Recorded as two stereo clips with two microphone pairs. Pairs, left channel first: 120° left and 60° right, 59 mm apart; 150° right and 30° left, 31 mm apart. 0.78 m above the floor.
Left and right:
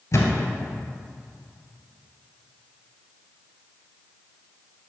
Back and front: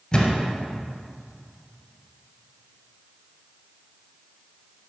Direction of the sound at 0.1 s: 150° left.